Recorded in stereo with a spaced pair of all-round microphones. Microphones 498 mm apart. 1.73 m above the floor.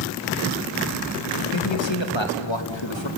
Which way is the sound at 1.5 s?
60° left (ahead or behind).